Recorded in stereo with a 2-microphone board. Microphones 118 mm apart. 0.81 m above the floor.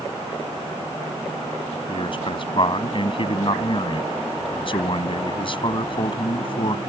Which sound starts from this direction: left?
A man speaking, at 1.9 s.